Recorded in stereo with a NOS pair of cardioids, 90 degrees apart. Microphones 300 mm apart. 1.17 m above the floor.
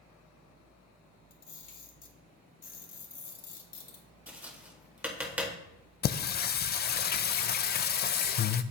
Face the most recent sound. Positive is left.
turn(degrees=35)